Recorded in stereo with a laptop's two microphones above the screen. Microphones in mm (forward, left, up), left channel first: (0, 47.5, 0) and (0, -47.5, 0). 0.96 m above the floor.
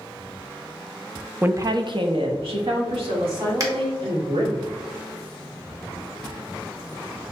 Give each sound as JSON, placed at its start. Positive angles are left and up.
{"t": 1.4, "sound": "a woman speaking", "side_deg": -20, "distance_m": 0.6}
{"t": 3.6, "sound": "a finger snap", "side_deg": -40, "distance_m": 1.1}